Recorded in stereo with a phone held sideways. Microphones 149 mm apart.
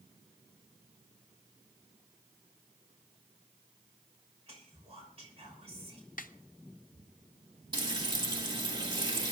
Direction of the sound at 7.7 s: 30° right (ahead or behind).